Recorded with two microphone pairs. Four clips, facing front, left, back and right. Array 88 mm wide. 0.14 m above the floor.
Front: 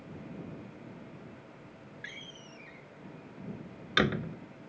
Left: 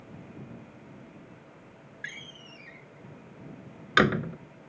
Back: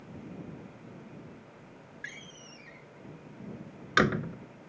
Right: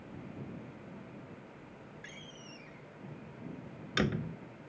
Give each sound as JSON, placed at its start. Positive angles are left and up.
{"t": 2.0, "sound": "a door slam", "azimuth_deg": 105}